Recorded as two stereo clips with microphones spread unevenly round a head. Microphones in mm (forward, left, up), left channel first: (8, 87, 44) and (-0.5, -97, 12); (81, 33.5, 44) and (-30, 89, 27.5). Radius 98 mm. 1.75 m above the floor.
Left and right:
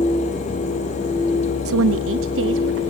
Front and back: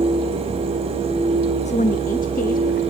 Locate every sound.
1.6 s a woman speaking: 80° right, 0.5 m; by 2.8 s 70° right, 1.4 m